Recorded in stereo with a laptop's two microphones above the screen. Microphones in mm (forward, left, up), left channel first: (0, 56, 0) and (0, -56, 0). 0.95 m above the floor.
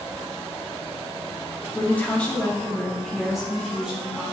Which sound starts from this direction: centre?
A woman speaking, at 1.7 s.